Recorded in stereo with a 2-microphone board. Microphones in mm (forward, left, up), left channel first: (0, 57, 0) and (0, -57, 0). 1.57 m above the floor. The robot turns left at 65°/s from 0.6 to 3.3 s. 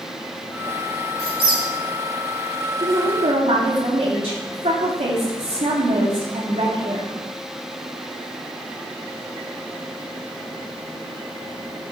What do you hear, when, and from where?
1.2 s a squeak: 65° right (ahead or behind), 3.5 m; by 1.6 s 40° right (ahead or behind), 3.5 m
2.8 s a woman speaking: 50° right, 3.5 m; by 7.1 s 80° right, 3.5 m